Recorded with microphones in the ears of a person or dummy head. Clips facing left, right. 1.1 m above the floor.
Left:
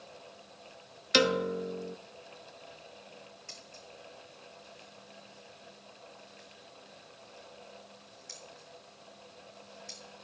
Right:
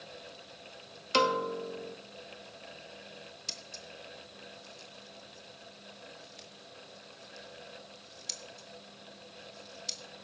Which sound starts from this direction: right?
Scissors, at 3.5 s.